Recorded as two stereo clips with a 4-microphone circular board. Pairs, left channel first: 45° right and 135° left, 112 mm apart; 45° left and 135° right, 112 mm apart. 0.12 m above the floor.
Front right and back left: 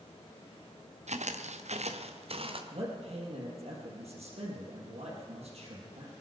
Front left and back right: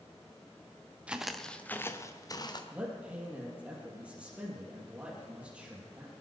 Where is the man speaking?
145° left, 4 m.